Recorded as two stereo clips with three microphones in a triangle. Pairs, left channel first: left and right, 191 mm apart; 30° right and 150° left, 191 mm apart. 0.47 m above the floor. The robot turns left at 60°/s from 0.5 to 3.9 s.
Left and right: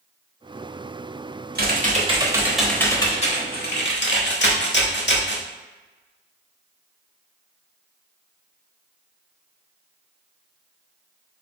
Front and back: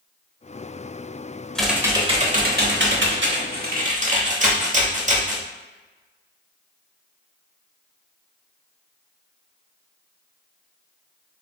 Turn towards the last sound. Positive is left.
turn(degrees=105)